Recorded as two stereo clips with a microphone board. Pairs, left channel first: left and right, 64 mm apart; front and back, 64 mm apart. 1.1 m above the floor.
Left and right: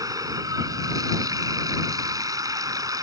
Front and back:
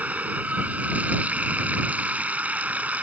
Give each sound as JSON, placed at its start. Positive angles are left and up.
{"t": 0.0, "sound": "running water", "azimuth_deg": -115}